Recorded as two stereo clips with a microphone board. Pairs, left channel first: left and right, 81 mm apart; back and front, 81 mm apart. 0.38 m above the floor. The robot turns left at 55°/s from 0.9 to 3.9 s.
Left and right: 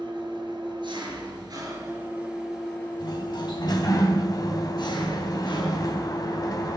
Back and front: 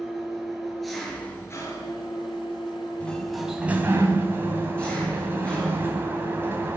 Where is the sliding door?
110° left, 3 m; by 6.8 s 60° left, 3 m.